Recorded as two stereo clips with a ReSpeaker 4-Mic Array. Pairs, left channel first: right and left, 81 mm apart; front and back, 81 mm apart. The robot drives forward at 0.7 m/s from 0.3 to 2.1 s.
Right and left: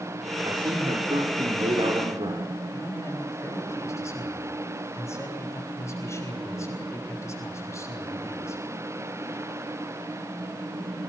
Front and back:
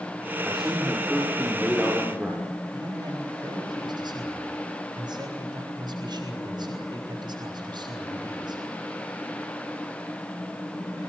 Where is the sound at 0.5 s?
90° left, 5.5 m; by 2.5 s 100° left, 5.5 m.